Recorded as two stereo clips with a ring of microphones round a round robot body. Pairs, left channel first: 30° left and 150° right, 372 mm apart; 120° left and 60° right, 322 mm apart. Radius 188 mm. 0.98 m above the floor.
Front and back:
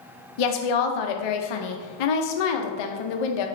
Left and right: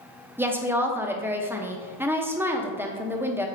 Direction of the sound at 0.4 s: 25° left.